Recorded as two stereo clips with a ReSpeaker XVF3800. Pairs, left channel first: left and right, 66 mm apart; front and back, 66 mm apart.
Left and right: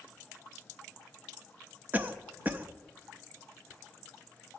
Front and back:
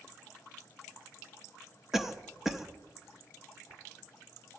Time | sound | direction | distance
1.9 | a cough | 105° right | 0.6 m